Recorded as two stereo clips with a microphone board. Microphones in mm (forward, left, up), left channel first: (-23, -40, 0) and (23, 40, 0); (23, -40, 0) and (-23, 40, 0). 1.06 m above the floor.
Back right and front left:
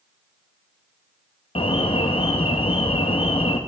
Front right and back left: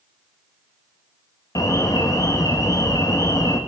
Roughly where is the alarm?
Behind right.